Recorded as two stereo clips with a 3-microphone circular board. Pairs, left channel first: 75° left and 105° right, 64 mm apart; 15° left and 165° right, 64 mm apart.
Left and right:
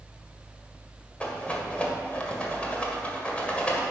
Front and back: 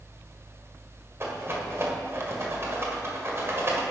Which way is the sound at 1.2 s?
145° left.